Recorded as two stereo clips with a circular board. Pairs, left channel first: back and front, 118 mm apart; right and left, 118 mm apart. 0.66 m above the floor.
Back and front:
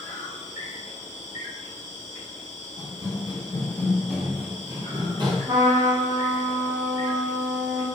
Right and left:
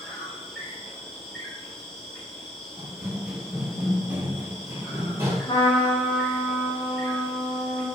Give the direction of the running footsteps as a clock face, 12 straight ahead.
6 o'clock.